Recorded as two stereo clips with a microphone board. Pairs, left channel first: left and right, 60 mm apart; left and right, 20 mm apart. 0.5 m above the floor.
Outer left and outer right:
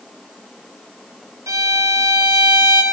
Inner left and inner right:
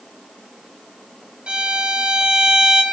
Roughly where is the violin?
Right.